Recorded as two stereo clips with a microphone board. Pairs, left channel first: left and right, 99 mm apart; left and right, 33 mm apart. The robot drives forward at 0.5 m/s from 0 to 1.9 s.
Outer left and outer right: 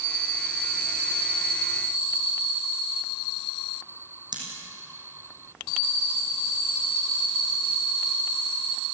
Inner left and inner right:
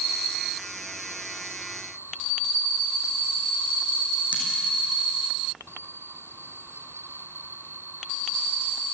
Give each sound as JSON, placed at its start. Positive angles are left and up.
{"t": 4.3, "sound": "scissors", "side_deg": -45, "distance_m": 5.5}